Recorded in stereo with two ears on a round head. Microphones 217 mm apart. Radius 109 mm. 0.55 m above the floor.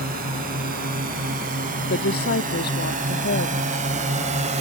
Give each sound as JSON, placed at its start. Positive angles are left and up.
{"t": 0.0, "sound": "a drone", "side_deg": -40}
{"t": 1.9, "sound": "a woman speaking", "side_deg": 40}